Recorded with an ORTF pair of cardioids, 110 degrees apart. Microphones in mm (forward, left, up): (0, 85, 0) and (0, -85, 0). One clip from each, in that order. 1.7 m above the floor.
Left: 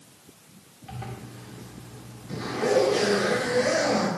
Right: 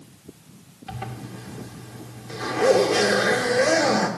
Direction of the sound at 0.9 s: 45° right.